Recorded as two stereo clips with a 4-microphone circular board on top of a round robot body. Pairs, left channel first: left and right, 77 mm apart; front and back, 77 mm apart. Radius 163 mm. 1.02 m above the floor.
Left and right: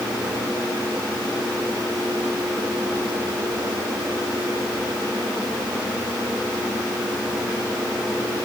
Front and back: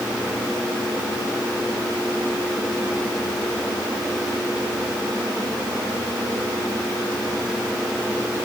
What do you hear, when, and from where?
Only background noise.